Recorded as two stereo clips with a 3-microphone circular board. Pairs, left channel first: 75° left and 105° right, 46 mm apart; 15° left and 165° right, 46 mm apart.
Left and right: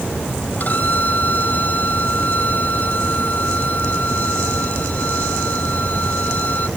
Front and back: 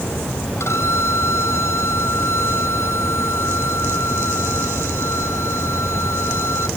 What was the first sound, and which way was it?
A violin, 25° left.